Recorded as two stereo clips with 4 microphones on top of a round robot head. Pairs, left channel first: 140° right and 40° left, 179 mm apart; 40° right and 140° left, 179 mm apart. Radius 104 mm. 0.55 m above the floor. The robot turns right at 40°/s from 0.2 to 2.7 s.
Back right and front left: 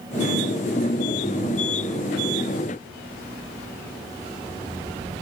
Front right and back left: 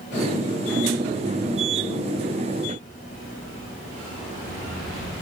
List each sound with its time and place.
Only background noise.